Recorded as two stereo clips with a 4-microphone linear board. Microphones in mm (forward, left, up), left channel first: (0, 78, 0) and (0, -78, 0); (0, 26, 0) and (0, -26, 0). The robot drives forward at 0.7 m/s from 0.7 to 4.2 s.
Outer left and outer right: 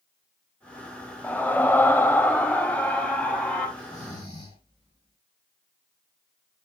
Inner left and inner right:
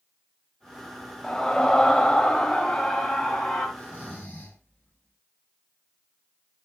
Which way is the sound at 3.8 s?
30° left (ahead or behind).